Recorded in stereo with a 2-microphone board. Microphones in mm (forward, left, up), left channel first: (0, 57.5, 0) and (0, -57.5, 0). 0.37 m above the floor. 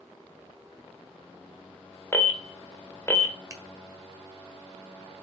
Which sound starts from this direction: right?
A finger snap, at 3.5 s.